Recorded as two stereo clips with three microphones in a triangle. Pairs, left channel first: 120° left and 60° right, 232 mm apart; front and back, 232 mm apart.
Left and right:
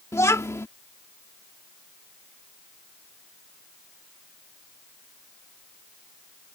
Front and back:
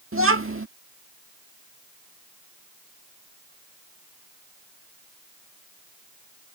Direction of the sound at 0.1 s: 165° right.